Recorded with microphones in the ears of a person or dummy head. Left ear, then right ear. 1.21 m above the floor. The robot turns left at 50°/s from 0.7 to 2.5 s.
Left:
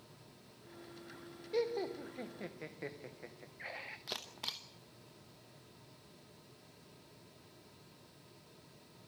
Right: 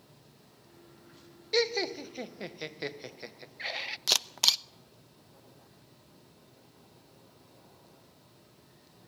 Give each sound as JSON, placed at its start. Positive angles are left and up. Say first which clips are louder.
{"t": 1.5, "sound": "laughter", "louder": "right 8 dB", "side_deg": -50, "distance_m": 0.8}
{"t": 4.1, "sound": "a camera shutter", "louder": "right 18 dB", "side_deg": -55, "distance_m": 0.8}